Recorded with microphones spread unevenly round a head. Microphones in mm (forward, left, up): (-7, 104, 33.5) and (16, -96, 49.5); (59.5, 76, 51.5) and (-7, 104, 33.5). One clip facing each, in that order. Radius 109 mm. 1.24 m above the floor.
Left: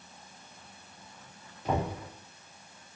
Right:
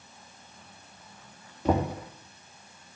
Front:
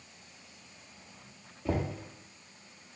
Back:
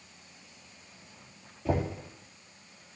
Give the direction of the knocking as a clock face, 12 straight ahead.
4 o'clock.